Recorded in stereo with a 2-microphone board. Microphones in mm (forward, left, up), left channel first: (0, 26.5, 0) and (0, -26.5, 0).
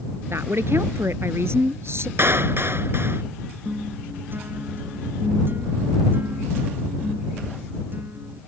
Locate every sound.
0.3 s a woman speaking: 60° right (ahead or behind)
2.2 s a clap: 50° right (ahead or behind)
3.6 s a guitar: 45° right (ahead or behind)